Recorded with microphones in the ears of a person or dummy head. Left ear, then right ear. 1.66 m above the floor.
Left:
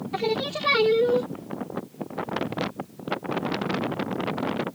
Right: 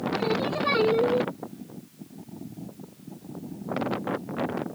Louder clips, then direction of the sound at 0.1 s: Left 2 dB; 15° left (ahead or behind).